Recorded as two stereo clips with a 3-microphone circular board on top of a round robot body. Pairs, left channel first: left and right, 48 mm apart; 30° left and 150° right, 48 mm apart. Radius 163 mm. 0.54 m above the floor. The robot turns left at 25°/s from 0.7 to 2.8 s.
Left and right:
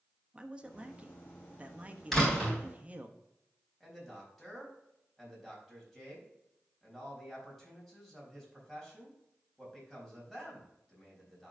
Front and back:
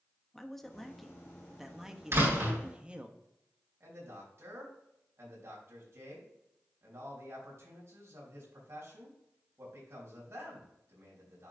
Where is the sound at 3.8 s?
175° left, 4 m.